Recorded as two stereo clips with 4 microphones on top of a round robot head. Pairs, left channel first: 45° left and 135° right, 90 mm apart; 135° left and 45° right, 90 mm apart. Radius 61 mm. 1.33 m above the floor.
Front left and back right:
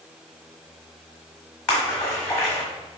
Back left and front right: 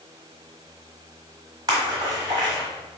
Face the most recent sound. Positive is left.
turn(degrees=-35)